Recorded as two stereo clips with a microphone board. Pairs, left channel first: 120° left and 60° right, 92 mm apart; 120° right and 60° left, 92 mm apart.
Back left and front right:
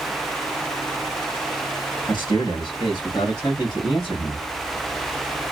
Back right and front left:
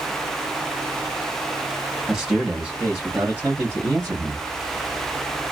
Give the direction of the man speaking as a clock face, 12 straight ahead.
7 o'clock.